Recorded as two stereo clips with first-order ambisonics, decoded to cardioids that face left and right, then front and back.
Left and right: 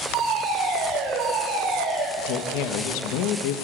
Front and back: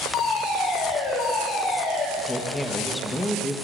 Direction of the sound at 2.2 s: 85° left.